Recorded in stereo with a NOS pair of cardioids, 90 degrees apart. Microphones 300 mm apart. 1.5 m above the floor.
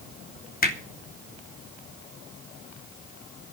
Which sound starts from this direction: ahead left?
Hammering, at 0.6 s.